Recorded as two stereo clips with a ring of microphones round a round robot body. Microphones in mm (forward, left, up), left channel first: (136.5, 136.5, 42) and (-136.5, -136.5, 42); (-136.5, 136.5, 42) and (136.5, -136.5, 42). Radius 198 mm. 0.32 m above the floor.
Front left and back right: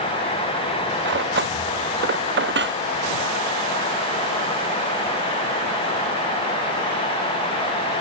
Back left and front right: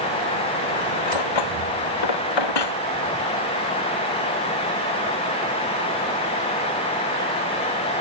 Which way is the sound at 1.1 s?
160° left.